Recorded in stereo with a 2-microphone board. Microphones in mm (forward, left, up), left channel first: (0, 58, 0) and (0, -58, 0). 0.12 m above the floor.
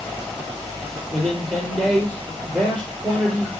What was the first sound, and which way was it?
A man speaking, 10° right (ahead or behind).